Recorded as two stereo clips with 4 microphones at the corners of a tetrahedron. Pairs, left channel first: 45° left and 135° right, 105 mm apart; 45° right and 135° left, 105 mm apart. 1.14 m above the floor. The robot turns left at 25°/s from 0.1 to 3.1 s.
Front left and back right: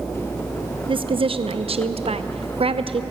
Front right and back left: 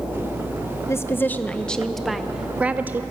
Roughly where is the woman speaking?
Right.